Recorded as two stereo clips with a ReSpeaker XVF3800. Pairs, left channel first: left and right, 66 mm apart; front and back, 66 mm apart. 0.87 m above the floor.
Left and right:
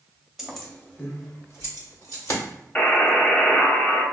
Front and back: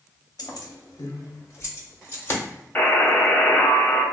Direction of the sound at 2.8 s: 35° left.